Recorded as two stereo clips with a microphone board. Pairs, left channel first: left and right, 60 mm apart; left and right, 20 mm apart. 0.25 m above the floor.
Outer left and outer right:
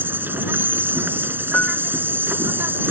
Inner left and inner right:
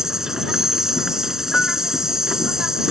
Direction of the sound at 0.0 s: 35° right (ahead or behind).